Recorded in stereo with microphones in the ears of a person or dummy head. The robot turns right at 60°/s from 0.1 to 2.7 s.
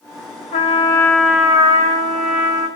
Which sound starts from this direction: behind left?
A trumpet, at 0.5 s.